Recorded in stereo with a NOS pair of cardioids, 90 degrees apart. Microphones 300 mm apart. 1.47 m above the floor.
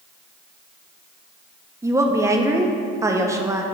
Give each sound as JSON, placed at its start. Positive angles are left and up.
{"t": 1.8, "sound": "a woman speaking", "azimuth_deg": -10, "distance_m": 0.8}